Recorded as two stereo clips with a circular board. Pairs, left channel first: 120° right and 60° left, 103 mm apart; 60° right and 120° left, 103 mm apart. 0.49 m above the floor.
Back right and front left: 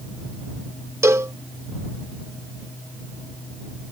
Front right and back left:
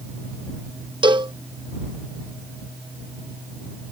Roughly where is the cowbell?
Behind left.